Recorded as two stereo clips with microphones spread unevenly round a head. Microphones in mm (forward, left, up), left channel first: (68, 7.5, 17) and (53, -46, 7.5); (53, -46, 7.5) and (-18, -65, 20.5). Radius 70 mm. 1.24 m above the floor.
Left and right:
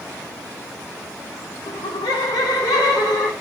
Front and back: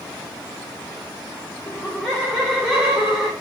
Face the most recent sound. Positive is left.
turn(degrees=105)